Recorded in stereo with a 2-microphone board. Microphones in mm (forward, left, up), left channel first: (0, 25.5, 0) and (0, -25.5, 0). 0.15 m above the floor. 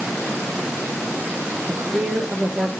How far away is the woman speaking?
About 4 m.